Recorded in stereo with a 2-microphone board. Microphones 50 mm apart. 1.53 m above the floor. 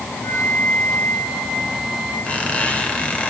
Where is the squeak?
30° left (ahead or behind), 2.5 m.